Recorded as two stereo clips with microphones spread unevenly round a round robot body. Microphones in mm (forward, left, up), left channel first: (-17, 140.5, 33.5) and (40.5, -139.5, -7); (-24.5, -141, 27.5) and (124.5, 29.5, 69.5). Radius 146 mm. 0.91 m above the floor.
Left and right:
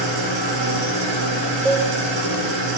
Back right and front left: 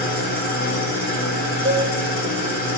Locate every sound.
0.0 s an engine running: 80° right, 3.5 m
1.6 s a cowbell: 15° left, 1.5 m